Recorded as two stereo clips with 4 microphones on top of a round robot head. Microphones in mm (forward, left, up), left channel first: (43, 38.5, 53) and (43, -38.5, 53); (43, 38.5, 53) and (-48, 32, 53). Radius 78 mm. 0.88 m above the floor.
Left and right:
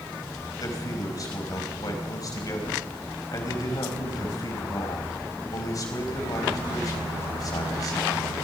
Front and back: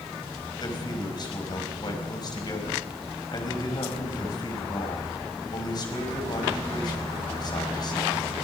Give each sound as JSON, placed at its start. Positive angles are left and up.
{"t": 0.6, "sound": "a man speaking", "azimuth_deg": 50, "distance_m": 4.5}